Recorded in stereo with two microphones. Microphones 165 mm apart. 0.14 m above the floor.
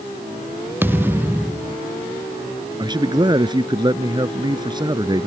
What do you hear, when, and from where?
0.8 s a thud: 10° right (ahead or behind)
2.8 s a man speaking: 25° right (ahead or behind)